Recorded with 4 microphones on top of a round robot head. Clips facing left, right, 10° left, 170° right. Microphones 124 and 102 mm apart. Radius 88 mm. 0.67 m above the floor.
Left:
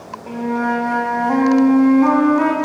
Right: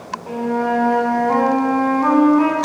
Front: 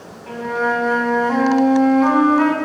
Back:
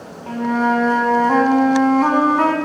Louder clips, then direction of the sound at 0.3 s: Even, back 3 dB; 150° left.